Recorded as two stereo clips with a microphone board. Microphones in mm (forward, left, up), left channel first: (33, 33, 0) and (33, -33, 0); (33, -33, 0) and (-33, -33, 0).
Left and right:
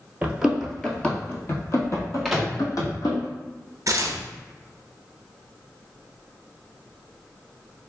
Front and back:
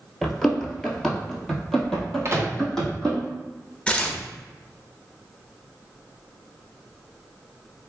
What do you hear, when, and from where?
0.2 s running footsteps: 80° right, 0.9 m; by 3.2 s 85° left, 2 m
2.2 s a microwave: straight behind, 0.7 m
3.9 s tearing paper: 70° right, 0.5 m